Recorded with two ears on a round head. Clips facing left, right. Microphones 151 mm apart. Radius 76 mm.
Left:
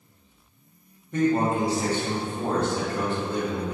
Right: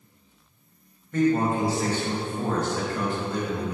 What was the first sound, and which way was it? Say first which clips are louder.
A man speaking: even; 15° left (ahead or behind).